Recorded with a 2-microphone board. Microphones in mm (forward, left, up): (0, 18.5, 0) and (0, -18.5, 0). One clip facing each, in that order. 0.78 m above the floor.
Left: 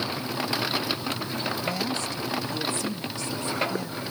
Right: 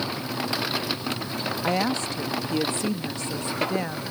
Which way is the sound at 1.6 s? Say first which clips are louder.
Right 4 dB; 45° right (ahead or behind).